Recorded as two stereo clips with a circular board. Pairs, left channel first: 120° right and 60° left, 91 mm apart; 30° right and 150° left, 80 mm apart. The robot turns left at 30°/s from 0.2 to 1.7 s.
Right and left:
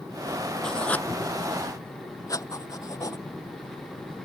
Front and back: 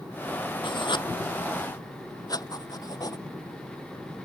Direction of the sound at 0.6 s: 40° right.